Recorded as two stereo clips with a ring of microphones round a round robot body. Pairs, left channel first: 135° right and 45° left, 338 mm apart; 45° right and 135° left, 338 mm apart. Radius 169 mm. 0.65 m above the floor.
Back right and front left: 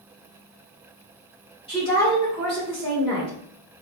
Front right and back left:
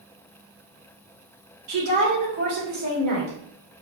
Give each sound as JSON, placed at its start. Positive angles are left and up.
{"t": 1.7, "sound": "a woman speaking", "azimuth_deg": 150, "distance_m": 2.0}